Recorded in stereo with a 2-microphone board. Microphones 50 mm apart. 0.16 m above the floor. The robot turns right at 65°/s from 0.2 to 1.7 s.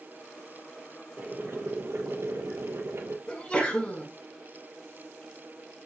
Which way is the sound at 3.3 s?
25° left (ahead or behind).